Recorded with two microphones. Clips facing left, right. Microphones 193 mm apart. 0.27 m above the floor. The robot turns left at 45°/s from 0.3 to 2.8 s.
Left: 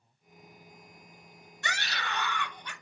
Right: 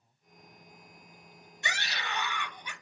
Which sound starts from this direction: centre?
A scream, at 1.6 s.